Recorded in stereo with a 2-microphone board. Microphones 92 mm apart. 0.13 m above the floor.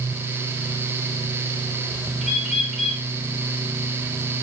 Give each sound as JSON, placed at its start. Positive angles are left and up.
{"t": 2.2, "sound": "a bird", "side_deg": 0, "distance_m": 6.5}